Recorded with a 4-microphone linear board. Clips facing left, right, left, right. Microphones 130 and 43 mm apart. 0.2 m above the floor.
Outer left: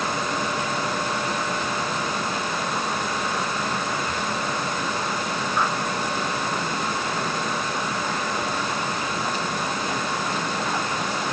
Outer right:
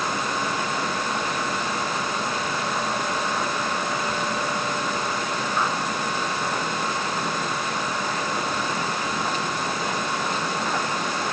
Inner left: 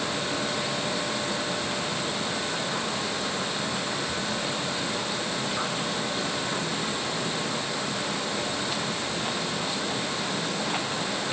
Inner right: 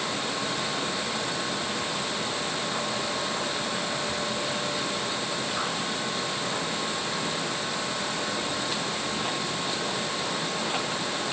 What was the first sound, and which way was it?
Only background noise.